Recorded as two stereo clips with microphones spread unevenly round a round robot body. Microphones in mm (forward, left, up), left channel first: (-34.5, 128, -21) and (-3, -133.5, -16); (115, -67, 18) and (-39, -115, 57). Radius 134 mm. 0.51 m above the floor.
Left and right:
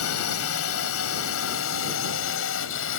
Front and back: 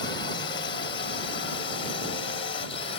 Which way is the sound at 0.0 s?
70° left.